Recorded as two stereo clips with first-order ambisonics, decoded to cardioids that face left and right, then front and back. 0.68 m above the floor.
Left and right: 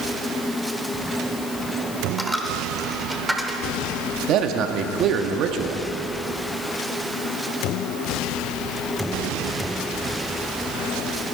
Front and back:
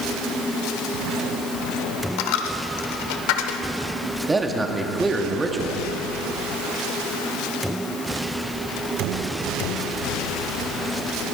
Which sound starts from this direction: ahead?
A dropped coin, at 2.2 s.